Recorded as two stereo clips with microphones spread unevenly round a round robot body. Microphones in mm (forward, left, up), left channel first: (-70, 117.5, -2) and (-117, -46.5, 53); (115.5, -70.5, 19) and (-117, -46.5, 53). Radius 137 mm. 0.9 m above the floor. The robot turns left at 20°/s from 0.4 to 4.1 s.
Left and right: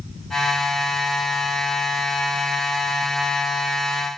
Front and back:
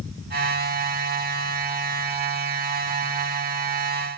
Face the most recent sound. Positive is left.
No sound to turn to.